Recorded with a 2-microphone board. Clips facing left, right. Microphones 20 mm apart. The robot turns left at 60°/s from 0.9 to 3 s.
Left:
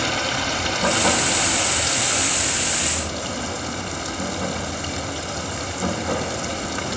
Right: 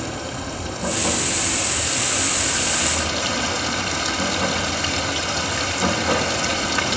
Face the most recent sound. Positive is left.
turn(degrees=-35)